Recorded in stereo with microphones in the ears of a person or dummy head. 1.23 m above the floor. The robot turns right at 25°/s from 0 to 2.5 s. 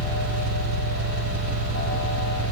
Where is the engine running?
120° right, 3.5 m; by 2.5 s 60° right, 3.5 m.